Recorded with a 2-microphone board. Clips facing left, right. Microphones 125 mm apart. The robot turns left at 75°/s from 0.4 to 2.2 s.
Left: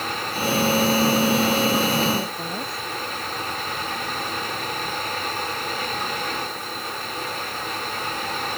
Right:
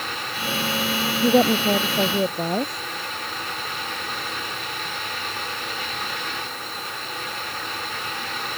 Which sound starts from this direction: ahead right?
A woman speaking, at 1.2 s.